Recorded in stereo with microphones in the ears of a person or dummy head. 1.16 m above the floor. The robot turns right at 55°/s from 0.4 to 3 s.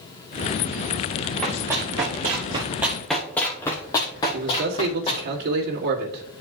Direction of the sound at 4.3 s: 55° right (ahead or behind).